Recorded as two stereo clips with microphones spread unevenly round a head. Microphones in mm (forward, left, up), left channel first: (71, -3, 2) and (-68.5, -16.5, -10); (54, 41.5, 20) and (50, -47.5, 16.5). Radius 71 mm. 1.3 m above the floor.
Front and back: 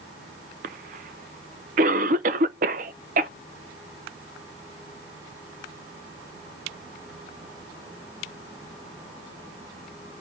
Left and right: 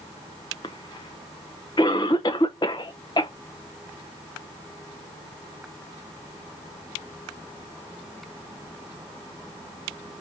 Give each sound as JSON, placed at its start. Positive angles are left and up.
{"t": 0.6, "sound": "a cough", "azimuth_deg": 150, "distance_m": 0.6}